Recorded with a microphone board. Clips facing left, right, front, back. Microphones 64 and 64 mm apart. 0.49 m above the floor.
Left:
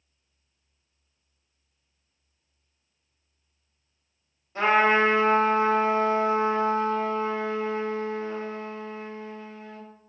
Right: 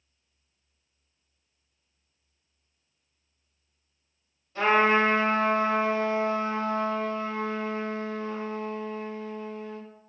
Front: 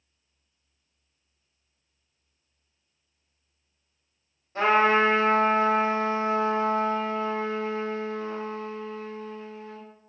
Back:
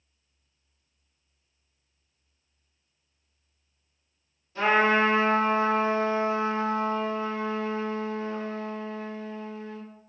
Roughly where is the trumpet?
Ahead left.